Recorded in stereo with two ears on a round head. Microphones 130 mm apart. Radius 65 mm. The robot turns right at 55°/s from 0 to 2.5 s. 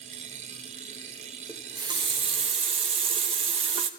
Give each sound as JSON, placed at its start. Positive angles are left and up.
{"t": 1.5, "sound": "a running tap", "azimuth_deg": -155, "distance_m": 1.1}